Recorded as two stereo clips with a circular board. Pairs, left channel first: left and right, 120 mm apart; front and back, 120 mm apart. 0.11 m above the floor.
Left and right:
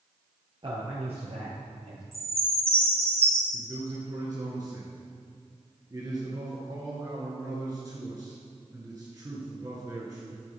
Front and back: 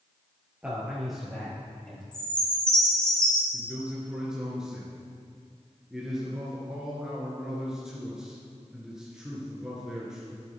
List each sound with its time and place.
0.6 s a man speaking: 105° right, 1.6 m; by 2.0 s 75° right, 3 m
2.1 s a chime: 80° right, 2.5 m
3.5 s a man speaking: 100° right, 1.9 m